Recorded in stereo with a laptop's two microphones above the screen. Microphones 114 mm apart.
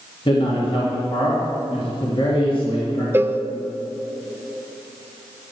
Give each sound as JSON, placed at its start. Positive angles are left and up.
{"t": 0.2, "sound": "a man speaking", "side_deg": 45, "distance_m": 2.0}
{"t": 3.1, "sound": "a cowbell", "side_deg": -15, "distance_m": 0.7}